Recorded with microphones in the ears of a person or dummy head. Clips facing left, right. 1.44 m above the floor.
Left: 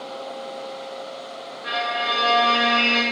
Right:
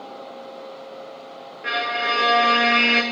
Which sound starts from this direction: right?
A violin, at 1.6 s.